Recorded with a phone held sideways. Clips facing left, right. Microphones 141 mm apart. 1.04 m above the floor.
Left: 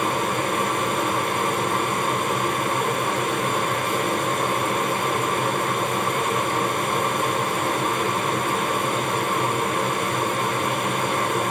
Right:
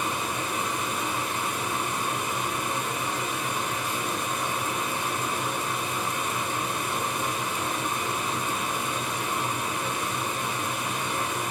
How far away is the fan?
About 1.5 m.